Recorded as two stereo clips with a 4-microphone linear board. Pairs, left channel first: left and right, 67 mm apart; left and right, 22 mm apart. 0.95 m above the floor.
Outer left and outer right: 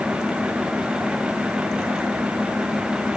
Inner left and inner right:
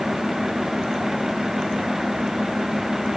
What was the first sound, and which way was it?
Only background noise.